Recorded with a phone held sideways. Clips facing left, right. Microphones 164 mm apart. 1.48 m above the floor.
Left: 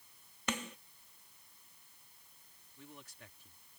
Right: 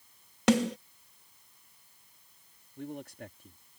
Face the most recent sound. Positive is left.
turn(degrees=-60)  # may be behind; listen again after turning